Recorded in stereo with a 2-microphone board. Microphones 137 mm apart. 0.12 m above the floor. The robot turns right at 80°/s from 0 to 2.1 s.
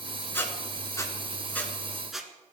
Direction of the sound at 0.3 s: 15° left (ahead or behind).